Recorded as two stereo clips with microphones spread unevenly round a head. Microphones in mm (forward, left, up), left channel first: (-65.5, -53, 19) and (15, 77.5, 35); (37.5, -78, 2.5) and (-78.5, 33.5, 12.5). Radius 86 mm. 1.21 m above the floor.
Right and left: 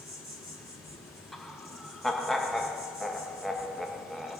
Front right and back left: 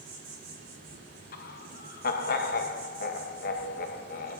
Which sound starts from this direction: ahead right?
Laughter, at 1.3 s.